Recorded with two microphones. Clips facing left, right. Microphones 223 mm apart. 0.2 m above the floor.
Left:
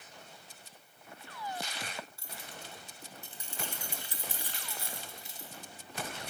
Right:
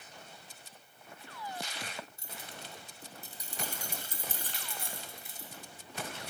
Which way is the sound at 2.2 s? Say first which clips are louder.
Even; 20° right (ahead or behind).